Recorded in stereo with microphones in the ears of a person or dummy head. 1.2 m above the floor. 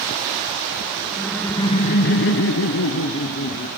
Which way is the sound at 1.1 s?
5° right (ahead or behind).